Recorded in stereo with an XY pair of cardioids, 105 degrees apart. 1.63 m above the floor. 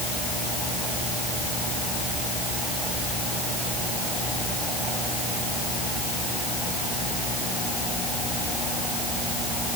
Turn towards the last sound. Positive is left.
No sound to turn to.